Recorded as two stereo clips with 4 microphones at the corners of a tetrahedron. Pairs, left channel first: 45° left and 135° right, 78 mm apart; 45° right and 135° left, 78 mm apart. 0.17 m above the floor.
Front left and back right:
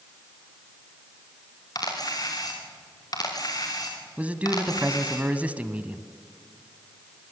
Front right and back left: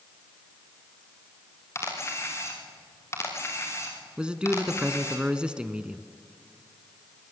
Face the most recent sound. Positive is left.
turn(degrees=-170)